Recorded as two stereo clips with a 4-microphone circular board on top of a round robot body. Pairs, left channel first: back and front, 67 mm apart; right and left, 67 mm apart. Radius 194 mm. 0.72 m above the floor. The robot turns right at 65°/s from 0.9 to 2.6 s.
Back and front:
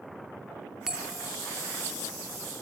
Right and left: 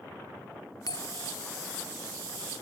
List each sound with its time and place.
0.9 s a bell: 80° right; by 1.3 s 55° right